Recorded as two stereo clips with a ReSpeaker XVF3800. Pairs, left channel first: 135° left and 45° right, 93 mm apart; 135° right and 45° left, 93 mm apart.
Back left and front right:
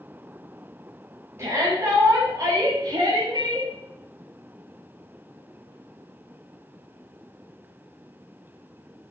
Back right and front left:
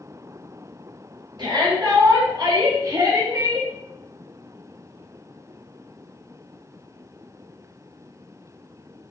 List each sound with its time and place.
1.4 s a shout: 10° left, 3.5 m; by 3.7 s 10° right, 3 m